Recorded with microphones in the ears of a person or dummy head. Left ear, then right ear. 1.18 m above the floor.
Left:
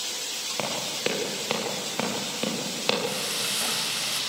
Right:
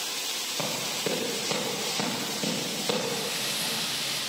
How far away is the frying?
About 5.5 m.